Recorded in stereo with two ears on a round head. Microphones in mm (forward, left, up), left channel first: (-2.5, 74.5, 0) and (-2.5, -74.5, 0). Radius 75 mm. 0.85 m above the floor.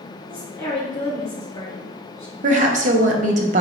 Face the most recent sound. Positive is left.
turn(degrees=-45)  # may be behind; listen again after turning